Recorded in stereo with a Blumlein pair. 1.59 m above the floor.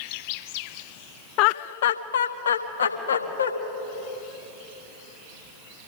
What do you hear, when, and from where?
1.4 s laughter: 40° left, 0.5 m; by 3.5 s 75° left, 1.8 m